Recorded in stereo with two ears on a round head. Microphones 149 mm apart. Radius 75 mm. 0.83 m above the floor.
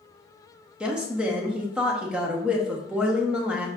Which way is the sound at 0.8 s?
5° right (ahead or behind).